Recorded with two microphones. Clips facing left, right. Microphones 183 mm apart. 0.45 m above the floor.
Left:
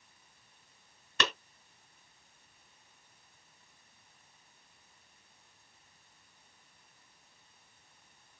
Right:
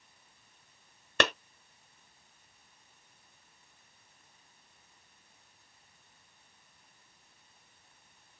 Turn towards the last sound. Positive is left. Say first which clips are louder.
# right 6 dB
turn(degrees=-60)  # may be behind; listen again after turning